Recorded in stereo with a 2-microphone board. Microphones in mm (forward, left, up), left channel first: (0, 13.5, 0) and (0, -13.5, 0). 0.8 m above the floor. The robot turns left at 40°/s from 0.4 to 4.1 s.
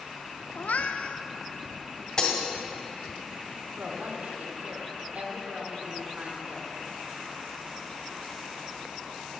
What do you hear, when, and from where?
0.6 s a cat meowing: 75° left (ahead or behind), 0.5 m; by 1.2 s 60° left (ahead or behind), 0.5 m
2.2 s breaking glass: 30° left (ahead or behind), 1.8 m; by 2.4 s 25° left (ahead or behind), 1.8 m
3.8 s a woman speaking: 75° right (ahead or behind), 2 m; by 6.7 s 70° right (ahead or behind), 2 m